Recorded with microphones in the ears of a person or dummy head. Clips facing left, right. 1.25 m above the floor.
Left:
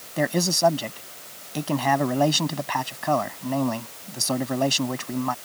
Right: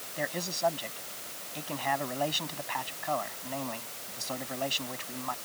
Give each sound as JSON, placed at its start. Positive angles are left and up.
{"t": 0.2, "sound": "a man speaking", "side_deg": 70}